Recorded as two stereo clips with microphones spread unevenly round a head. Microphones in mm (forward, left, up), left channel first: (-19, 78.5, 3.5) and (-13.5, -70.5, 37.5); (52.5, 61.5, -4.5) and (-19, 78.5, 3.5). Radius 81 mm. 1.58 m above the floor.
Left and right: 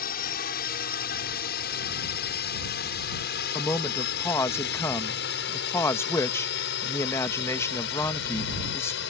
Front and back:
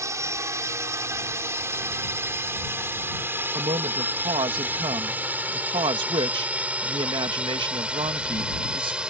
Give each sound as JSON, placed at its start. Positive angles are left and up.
{"t": 0.0, "sound": "a drone", "azimuth_deg": 120}
{"t": 3.5, "sound": "a man speaking", "azimuth_deg": 170}